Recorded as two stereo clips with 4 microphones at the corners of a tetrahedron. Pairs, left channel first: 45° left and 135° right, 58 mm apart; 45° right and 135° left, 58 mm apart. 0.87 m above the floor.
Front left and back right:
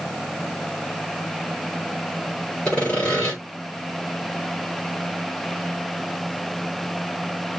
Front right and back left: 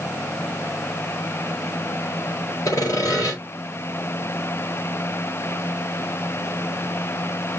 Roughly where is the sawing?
Ahead right.